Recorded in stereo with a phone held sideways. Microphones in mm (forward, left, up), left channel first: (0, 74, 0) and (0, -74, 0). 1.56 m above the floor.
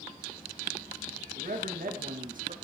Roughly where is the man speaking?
Right.